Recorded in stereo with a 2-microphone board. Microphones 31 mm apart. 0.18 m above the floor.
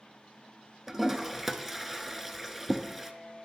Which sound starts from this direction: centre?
A toilet flushing, at 0.9 s.